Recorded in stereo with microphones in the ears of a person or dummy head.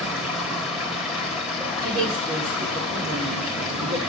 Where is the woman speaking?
40° right (ahead or behind), 5.5 m.